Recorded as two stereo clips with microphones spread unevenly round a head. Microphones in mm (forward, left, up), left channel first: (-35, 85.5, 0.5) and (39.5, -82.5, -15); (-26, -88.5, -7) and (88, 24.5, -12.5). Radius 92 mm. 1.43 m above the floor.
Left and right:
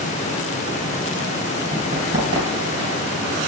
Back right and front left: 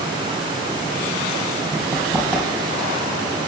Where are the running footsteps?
50° right, 2.5 m.